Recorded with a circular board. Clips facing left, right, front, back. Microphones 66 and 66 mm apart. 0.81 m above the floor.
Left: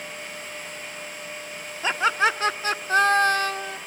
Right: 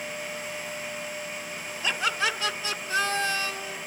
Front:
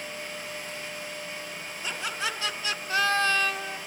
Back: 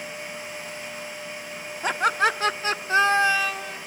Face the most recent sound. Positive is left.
turn(degrees=70)